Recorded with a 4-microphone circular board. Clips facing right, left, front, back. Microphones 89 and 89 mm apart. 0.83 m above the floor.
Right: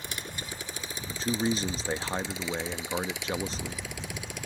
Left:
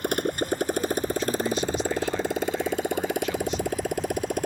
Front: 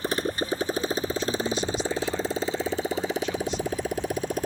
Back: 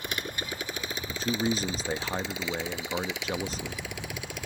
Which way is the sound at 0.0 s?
55° left.